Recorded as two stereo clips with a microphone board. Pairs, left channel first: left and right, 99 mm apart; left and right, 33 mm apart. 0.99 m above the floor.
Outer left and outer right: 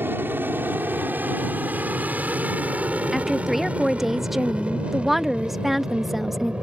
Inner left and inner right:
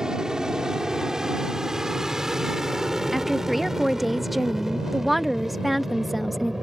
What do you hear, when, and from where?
0.0 s an aircraft: 20° right (ahead or behind); by 6.6 s 10° right (ahead or behind)
3.1 s a woman speaking: centre (ahead or behind)